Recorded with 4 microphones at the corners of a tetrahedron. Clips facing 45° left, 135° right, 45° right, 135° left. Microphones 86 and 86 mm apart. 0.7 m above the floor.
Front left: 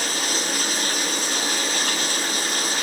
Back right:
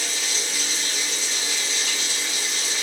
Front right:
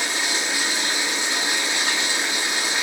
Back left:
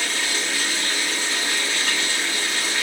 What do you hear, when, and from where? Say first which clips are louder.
0.0 s running water: front left 5 dB, front right 1 dB; 25° left, 1.0 m